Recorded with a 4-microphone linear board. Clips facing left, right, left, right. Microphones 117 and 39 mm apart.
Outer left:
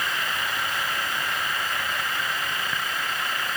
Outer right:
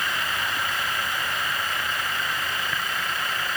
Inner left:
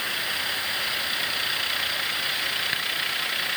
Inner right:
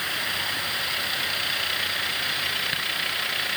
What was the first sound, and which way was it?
Only background noise.